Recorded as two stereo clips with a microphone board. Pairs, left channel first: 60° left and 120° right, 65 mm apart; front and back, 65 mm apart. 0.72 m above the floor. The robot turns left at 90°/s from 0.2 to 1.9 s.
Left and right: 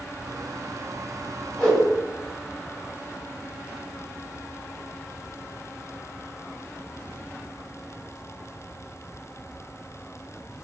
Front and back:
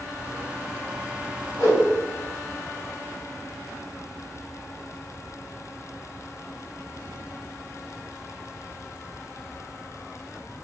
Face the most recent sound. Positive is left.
turn(degrees=-45)